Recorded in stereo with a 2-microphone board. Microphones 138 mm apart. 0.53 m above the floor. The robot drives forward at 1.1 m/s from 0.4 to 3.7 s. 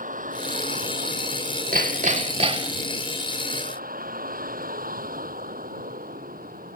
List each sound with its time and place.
0.0 s a vehicle: 70° right (ahead or behind); by 6.8 s 90° right
1.7 s hammering: 80° right; by 2.9 s 35° right (ahead or behind)